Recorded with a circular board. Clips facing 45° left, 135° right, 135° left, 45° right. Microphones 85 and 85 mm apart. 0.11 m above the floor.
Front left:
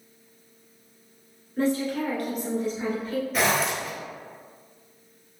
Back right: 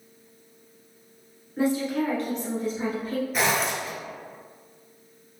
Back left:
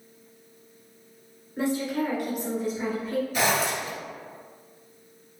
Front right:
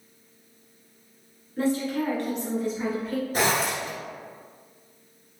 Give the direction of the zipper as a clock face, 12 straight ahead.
2 o'clock.